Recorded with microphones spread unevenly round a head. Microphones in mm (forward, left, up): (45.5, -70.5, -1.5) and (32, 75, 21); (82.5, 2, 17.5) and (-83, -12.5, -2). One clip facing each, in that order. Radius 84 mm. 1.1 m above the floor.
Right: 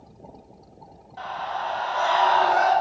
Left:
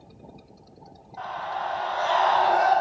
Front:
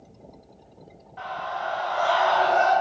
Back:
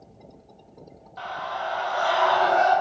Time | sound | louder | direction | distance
1.2 | a scream | right 1 dB, even | 140° right | 2 m